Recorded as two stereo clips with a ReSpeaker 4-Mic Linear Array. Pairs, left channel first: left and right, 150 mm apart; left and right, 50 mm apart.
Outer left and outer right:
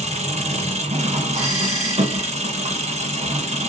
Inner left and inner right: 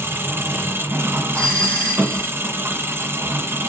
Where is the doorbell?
25° left (ahead or behind), 2.5 m.